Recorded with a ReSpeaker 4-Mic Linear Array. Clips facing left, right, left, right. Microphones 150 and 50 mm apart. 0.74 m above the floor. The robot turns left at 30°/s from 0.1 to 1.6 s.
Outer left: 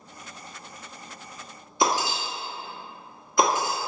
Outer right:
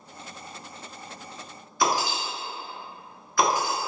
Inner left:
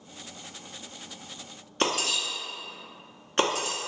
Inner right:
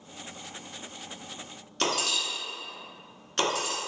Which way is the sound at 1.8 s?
25° left (ahead or behind).